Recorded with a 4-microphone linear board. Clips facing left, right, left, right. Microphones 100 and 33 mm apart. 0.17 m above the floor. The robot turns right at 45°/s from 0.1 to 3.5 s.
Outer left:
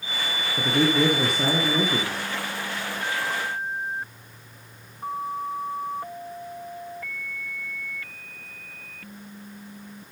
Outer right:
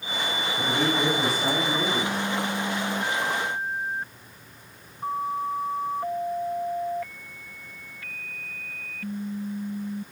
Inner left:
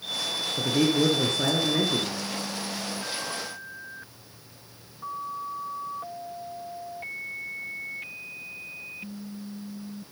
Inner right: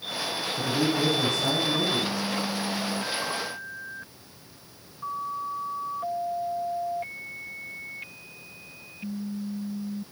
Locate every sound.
0.6 s a man speaking: 55° left, 2.5 m; by 2.1 s 125° left, 2.5 m